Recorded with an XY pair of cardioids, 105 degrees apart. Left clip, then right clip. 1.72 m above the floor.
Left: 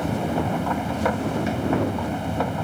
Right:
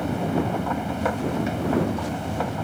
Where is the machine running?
15° left.